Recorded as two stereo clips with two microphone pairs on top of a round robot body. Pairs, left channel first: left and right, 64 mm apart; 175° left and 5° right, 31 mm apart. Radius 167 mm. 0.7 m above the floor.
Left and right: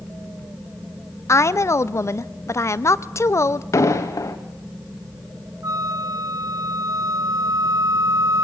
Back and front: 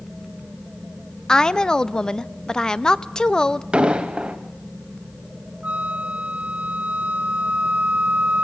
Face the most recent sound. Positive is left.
turn(degrees=-55)